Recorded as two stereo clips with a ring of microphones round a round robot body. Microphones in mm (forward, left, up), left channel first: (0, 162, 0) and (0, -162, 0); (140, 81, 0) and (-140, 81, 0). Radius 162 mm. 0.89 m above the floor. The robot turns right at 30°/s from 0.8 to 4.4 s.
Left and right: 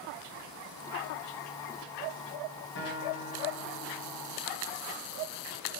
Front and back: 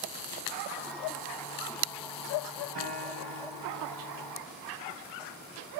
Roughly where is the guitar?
Behind left.